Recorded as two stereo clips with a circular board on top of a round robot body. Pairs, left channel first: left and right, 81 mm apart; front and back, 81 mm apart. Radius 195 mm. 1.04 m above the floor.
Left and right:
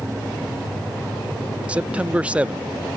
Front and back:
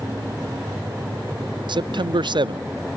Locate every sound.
1.7 s a man speaking: 165° right, 0.6 m